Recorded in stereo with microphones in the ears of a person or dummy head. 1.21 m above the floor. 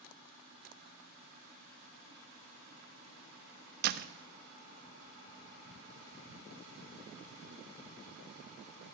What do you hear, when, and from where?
3.8 s a door slam: 50° right (ahead or behind), 0.7 m